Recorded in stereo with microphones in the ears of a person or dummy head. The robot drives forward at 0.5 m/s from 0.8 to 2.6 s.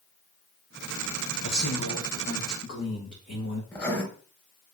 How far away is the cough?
No cough in this recording.